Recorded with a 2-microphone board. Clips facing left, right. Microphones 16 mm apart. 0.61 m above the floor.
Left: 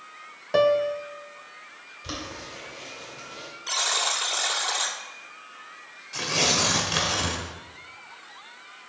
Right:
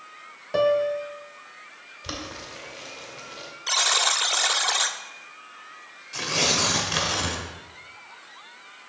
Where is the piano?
20° left (ahead or behind), 0.6 m.